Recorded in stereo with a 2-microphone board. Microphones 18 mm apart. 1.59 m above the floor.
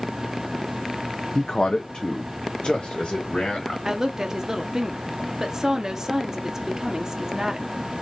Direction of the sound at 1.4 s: 55° left (ahead or behind).